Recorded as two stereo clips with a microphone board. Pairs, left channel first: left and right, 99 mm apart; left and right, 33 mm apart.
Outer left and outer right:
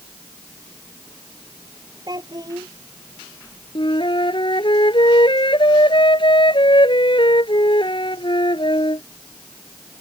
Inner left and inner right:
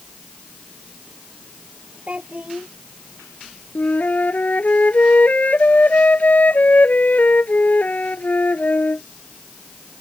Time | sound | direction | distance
2.1 | a child speaking | 40° right (ahead or behind) | ?
3.8 | a flute | 55° left (ahead or behind) | ?